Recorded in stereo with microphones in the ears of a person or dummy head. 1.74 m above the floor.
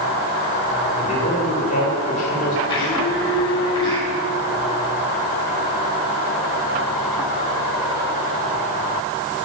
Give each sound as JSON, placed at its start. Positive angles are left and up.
{"t": 1.0, "sound": "a man speaking", "side_deg": 35, "distance_m": 5.5}
{"t": 2.7, "sound": "a blender", "side_deg": 25, "distance_m": 5.5}